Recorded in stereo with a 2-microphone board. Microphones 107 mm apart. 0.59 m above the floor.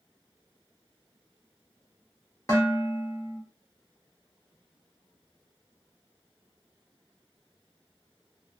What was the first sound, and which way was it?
Dishes clattering, 30° left (ahead or behind).